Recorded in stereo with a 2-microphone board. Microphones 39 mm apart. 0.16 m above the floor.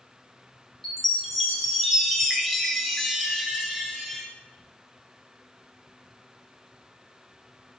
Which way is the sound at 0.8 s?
Centre (ahead or behind).